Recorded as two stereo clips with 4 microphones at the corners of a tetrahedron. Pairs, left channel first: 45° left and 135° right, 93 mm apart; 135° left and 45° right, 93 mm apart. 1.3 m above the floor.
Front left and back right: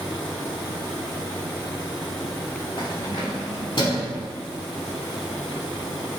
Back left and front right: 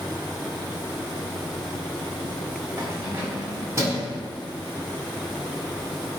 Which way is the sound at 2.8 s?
10° left.